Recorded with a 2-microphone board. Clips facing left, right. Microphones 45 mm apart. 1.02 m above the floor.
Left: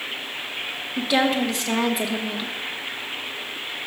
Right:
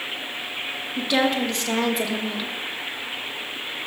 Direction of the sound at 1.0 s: 5° left (ahead or behind).